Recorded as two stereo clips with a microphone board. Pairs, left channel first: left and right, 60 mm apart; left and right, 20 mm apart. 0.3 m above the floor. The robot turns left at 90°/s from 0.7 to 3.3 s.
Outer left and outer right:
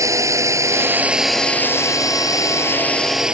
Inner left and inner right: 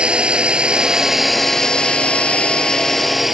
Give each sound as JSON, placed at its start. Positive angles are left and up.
{"t": 0.0, "sound": "a drone", "side_deg": -60}